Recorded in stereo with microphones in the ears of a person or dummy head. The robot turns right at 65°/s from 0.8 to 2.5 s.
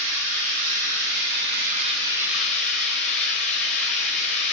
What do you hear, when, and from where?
0.0 s running water: 105° right, 0.9 m; by 4.5 s 5° left, 0.9 m